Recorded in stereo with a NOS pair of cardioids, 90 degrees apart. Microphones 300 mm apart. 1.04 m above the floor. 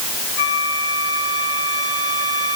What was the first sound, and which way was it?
A flute, 55° left.